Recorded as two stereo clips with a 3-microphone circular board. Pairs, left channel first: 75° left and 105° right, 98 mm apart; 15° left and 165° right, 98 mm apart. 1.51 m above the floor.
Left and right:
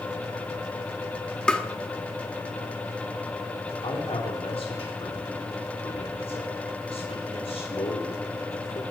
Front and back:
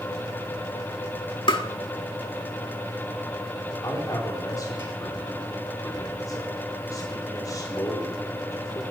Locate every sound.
1.5 s tapping: 5° right, 1.8 m
3.8 s a man speaking: 70° left, 4 m